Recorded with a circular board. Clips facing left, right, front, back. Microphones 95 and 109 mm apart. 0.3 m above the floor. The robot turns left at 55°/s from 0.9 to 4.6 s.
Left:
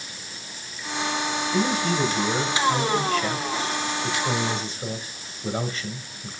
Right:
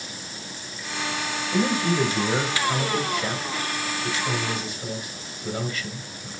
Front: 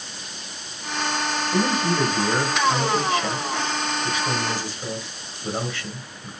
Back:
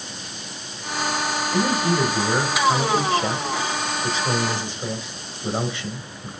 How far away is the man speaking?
About 1.6 m.